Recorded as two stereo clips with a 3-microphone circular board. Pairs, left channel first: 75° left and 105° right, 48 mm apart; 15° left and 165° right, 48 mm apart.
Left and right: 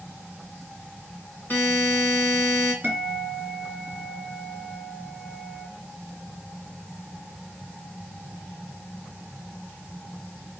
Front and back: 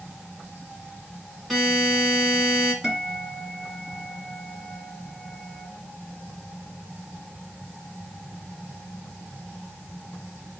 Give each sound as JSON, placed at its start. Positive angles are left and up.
{"t": 1.5, "sound": "a buzzer", "azimuth_deg": 105, "distance_m": 1.8}
{"t": 2.8, "sound": "a guitar", "azimuth_deg": -80, "distance_m": 1.9}